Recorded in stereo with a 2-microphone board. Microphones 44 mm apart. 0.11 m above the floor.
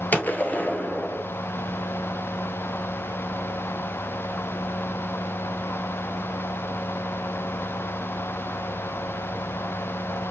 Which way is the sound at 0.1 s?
45° left (ahead or behind).